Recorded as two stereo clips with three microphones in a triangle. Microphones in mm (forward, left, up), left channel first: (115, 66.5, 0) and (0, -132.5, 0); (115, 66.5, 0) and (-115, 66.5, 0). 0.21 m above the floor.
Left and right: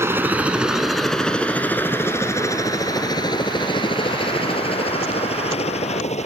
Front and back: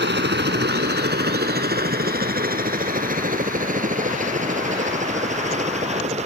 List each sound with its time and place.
0.0 s a helicopter: 165° left; by 6.3 s 120° left